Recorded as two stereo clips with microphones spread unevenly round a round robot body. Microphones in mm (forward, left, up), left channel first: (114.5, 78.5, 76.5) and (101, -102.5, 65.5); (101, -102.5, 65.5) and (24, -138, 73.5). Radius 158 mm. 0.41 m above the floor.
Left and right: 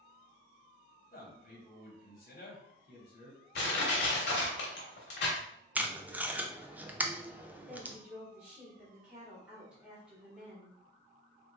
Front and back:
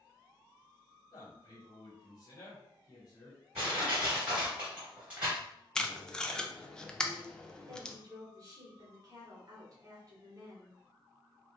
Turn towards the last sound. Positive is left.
turn(degrees=-165)